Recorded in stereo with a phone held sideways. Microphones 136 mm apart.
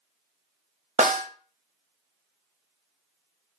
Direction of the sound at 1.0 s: 55° right (ahead or behind).